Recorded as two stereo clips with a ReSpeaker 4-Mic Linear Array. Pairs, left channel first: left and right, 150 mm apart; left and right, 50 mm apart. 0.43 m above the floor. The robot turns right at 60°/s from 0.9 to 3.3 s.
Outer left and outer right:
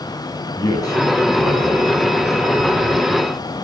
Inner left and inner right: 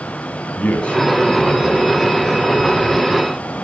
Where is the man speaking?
155° left, 4 m; by 2.1 s 130° right, 4 m.